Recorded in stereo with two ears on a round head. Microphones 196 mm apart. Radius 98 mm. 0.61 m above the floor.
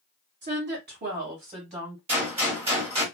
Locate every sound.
0.4 s a woman speaking: 55° right (ahead or behind), 1.7 m; by 2.0 s 15° right (ahead or behind), 1.5 m
2.1 s a gunshot: 25° right (ahead or behind), 1.4 m